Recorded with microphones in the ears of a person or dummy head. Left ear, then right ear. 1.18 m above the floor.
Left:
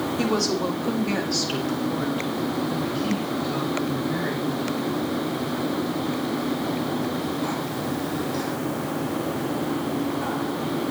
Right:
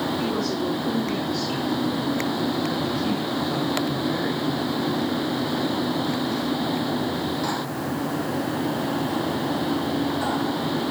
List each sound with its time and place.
0.2 s a woman speaking: 85° left, 3 m; by 5.0 s 30° right (ahead or behind), 4 m